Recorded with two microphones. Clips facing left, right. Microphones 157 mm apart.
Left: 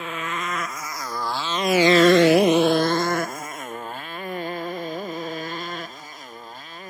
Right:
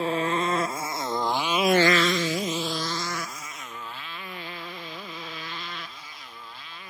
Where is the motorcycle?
35° right (ahead or behind); by 6.9 s 45° left (ahead or behind).